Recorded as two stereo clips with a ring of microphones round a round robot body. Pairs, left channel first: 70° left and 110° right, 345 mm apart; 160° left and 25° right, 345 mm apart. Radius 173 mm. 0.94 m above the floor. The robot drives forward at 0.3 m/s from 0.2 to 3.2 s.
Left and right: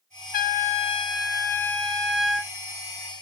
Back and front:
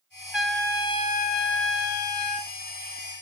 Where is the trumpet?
60° left, 0.6 m; by 2.5 s 160° left, 0.8 m.